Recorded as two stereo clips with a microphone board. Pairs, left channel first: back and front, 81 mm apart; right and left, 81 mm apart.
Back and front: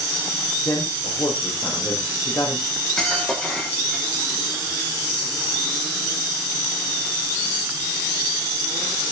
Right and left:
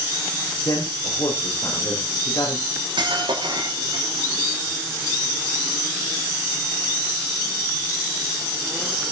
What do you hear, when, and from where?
0.7 s a man speaking: 130° right, 5.5 m
2.7 s cutlery clinking: 100° left, 5.5 m